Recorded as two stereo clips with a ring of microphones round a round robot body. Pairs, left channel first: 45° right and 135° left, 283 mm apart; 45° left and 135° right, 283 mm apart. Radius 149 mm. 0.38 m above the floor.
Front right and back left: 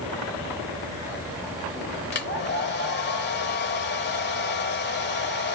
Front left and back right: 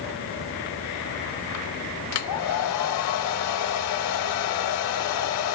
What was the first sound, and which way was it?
A hair dryer, 10° left.